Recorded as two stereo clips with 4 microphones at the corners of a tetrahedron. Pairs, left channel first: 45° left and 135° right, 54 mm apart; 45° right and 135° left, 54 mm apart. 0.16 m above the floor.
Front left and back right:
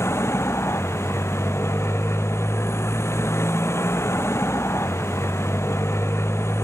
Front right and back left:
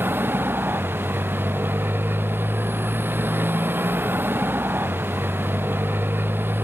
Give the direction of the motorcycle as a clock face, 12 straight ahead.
9 o'clock.